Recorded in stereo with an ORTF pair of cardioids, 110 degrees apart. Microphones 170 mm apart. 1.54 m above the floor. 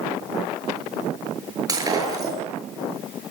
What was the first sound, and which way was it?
Breaking glass, 20° right.